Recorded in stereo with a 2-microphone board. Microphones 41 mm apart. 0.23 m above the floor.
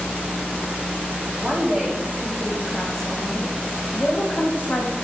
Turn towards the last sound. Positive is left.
turn(degrees=40)  # may be behind; listen again after turning